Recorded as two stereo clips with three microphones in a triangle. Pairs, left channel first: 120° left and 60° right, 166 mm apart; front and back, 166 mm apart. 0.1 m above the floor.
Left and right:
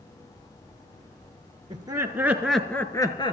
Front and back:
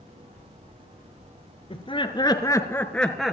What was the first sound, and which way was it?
Laughter, 20° right.